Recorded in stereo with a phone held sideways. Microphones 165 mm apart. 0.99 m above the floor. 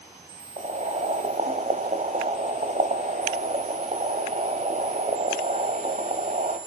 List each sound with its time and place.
0.6 s boiling: 45° right (ahead or behind), 2.0 m